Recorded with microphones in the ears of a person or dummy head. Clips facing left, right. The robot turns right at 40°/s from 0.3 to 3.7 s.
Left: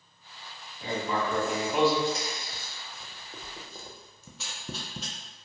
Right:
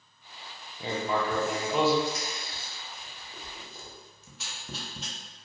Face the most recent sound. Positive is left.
turn(degrees=85)